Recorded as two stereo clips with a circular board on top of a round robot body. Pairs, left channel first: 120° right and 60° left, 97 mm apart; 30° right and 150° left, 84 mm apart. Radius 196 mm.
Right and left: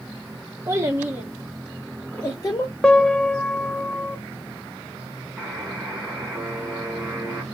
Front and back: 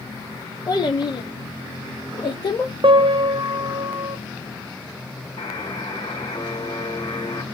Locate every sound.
0.7 s a child speaking: 5° left, 1.4 m; by 2.7 s 65° right, 1.8 m
2.8 s a piano: 160° left, 0.7 m
5.4 s a buzzer: 15° right, 2 m